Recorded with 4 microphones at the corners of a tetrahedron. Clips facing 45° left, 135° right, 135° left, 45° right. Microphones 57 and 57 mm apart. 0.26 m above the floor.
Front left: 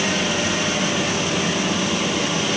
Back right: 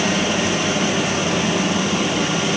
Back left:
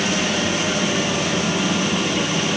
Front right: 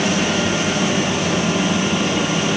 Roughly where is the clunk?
No clunk in this recording.